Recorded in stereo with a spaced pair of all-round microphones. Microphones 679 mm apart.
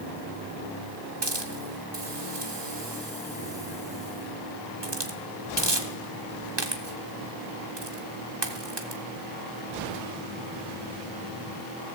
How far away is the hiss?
About 1.2 m.